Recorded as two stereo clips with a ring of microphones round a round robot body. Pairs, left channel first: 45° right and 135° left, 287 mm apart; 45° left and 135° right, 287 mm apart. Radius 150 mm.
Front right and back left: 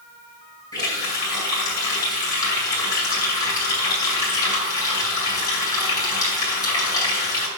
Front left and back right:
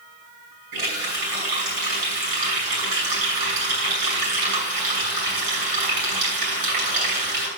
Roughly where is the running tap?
Behind right.